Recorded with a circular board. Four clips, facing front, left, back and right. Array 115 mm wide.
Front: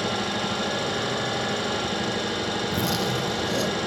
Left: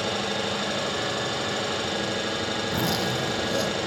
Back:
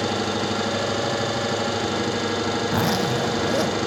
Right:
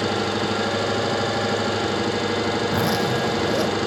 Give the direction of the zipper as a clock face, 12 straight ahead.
5 o'clock.